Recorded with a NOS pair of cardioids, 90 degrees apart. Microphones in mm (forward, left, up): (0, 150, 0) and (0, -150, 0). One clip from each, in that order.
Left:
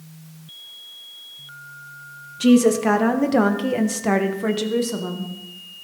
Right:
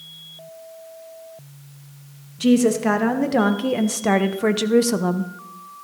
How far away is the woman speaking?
About 2.5 m.